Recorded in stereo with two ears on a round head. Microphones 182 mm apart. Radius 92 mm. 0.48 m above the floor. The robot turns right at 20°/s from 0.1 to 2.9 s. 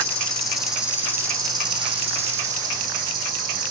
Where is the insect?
175° left, 2.5 m; by 3.7 s 130° right, 2.5 m.